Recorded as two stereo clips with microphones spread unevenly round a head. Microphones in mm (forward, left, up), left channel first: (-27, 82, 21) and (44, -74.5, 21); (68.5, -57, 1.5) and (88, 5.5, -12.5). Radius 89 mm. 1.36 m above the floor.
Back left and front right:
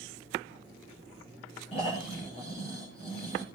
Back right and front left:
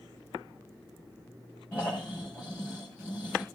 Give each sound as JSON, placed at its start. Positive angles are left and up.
{"t": 1.7, "sound": "snoring", "azimuth_deg": 175, "distance_m": 6.5}